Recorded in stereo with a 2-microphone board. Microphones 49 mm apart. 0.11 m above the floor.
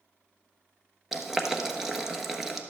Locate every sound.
1.1 s boiling: 5° right (ahead or behind), 1.0 m